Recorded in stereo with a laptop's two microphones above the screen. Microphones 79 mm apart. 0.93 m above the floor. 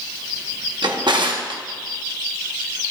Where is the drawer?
70° right (ahead or behind), 0.9 m.